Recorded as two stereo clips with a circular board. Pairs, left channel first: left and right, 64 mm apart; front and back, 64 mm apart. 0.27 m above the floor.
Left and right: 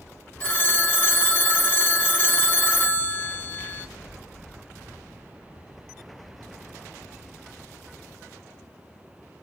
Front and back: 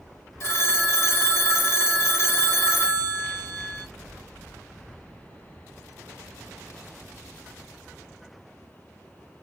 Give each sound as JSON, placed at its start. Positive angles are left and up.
{"t": 0.4, "sound": "a phone ringing", "azimuth_deg": 30, "distance_m": 1.4}